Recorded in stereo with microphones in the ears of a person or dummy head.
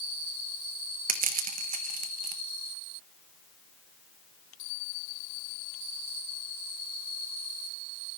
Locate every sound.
1.1 s crushing: 40° right (ahead or behind), 1.5 m